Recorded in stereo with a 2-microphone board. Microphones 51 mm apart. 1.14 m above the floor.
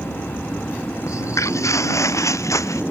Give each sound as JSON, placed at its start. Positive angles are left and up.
{"t": 1.1, "sound": "footsteps", "side_deg": 75}